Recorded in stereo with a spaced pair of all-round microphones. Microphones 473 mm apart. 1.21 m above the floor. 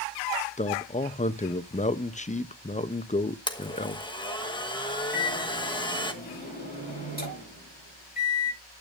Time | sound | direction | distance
0.6 | a man speaking | 15° left (ahead or behind) | 0.6 m
3.5 | a blender | 10° left (ahead or behind) | 1.3 m
5.1 | a microwave | 20° left (ahead or behind) | 8.5 m